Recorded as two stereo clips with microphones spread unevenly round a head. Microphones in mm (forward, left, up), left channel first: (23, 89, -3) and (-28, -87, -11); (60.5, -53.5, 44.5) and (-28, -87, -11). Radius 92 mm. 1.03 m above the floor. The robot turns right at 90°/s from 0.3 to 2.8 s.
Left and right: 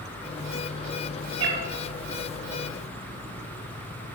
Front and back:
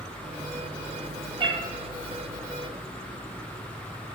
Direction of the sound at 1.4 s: 120° right.